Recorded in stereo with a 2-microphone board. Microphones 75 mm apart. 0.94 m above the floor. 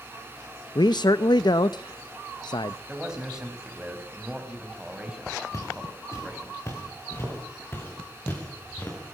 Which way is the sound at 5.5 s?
45° left (ahead or behind).